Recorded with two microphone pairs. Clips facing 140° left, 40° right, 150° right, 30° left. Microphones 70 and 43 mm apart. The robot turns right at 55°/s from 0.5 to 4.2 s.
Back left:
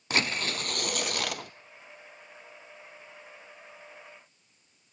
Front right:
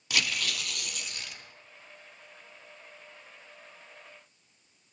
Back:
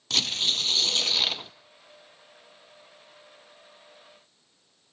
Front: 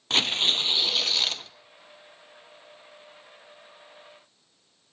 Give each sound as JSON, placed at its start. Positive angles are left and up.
{"t": 0.1, "sound": "tearing paper", "azimuth_deg": 85, "distance_m": 0.7}